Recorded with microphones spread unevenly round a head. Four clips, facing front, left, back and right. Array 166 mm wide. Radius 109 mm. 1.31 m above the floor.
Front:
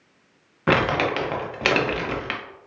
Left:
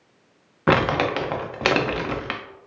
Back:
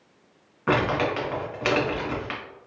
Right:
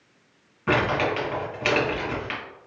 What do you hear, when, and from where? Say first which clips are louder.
0.7 s crumpling: left 3 dB, front 2 dB; 70° left, 0.6 m